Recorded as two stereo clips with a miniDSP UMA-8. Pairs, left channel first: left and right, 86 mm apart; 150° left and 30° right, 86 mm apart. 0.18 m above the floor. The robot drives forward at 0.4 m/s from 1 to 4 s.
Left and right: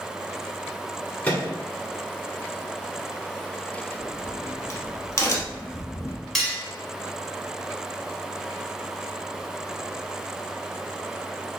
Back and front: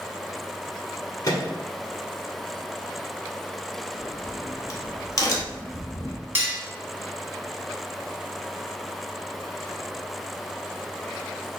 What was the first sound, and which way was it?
A microwave, 155° left.